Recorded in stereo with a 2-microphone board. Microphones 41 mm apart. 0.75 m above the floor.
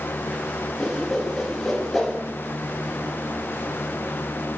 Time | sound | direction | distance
0.8 | a whoosh | centre (ahead or behind) | 5.5 m